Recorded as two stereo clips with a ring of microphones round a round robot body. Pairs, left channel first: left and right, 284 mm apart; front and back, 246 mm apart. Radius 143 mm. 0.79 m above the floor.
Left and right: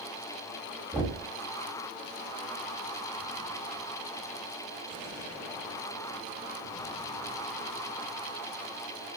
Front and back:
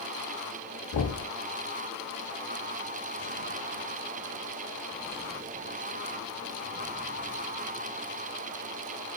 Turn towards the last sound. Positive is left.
turn(degrees=0)